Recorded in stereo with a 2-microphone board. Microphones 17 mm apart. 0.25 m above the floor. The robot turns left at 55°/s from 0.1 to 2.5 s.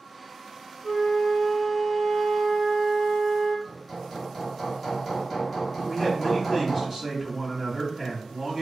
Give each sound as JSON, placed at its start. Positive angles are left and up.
{"t": 0.8, "sound": "a flute", "azimuth_deg": 35, "distance_m": 1.8}
{"t": 3.6, "sound": "hammering", "side_deg": -15, "distance_m": 1.4}
{"t": 5.8, "sound": "a man speaking", "side_deg": -20, "distance_m": 1.7}